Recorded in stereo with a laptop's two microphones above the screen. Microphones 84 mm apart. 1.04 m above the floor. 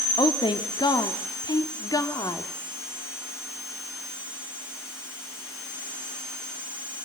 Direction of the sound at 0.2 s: 85° left.